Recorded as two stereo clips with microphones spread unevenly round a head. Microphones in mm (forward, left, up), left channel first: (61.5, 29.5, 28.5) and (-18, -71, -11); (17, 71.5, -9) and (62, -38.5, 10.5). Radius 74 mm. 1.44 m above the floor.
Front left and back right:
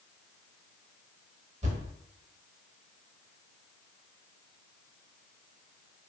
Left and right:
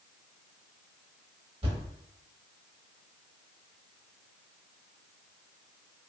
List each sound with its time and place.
1.6 s a thud: 95° right, 1.1 m